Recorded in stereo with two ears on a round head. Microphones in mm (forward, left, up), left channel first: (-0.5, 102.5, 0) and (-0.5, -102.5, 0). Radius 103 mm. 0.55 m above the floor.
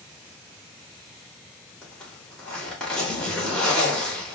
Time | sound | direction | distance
1.8 | a zipper | 5° left (ahead or behind) | 1.3 m